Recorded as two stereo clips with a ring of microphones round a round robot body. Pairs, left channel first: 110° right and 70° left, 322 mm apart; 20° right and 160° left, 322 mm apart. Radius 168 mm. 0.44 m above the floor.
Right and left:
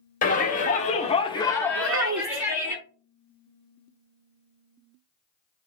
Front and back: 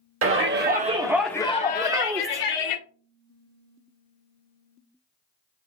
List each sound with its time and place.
0.2 s a shout: 170° right, 1.5 m; by 2.8 s 15° right, 1.8 m
1.8 s a child speaking: 85° left, 0.9 m